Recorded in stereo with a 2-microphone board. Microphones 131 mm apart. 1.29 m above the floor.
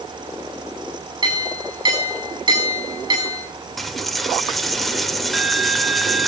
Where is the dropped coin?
Centre (ahead or behind), 1.1 m.